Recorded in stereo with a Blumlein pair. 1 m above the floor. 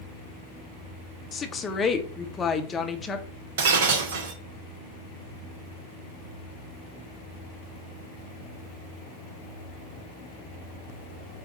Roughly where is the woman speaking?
Ahead.